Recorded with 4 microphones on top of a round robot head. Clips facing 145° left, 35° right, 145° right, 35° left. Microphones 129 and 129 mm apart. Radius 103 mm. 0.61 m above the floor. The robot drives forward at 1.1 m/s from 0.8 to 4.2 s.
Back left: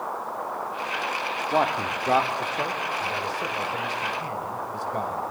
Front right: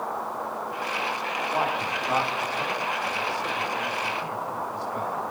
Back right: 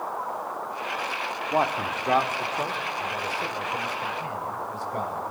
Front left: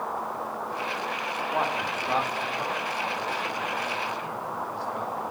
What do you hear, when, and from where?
1.5 s a man speaking: 175° left, 1.9 m; by 5.2 s straight behind, 4.5 m